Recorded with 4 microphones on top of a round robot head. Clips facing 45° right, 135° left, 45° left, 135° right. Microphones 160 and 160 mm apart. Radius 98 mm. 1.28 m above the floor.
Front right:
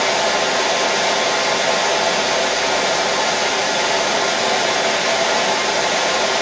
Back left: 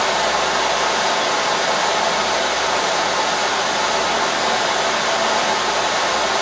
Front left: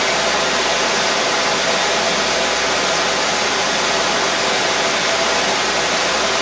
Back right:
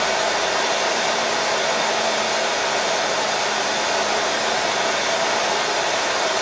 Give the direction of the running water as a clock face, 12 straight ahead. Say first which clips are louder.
Front right 1 dB, front left 2 dB; 11 o'clock.